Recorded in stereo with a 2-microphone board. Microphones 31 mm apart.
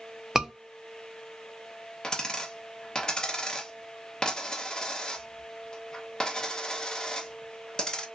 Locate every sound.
0.3 s a scream: 15° right (ahead or behind), 0.6 m
2.0 s a dropped coin: 25° left (ahead or behind), 0.7 m